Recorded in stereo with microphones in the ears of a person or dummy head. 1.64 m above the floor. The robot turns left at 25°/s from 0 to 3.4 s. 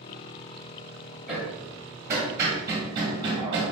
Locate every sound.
1.3 s hammering: 5° right (ahead or behind), 0.8 m; by 3.7 s 25° right (ahead or behind), 0.8 m